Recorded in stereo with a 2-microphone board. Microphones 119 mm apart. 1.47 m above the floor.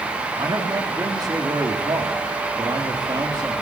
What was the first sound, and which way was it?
A man speaking, 35° right (ahead or behind).